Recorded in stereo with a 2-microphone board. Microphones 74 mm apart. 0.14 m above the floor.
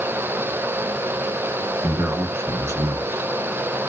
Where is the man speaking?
35° right (ahead or behind), 1.3 m.